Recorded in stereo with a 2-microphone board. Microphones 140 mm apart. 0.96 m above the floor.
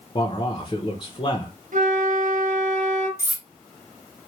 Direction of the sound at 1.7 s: 65° right (ahead or behind).